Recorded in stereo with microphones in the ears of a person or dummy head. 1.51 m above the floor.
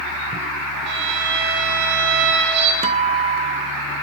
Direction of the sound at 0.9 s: 60° right (ahead or behind).